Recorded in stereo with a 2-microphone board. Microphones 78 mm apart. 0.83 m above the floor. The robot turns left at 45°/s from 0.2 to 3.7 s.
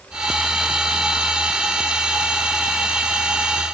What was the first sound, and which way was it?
Only background noise.